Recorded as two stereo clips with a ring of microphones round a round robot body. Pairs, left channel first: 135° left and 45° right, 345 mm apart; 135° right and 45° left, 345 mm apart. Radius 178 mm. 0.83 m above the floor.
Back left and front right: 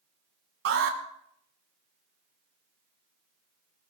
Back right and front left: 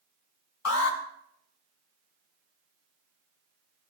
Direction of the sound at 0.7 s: 95° right.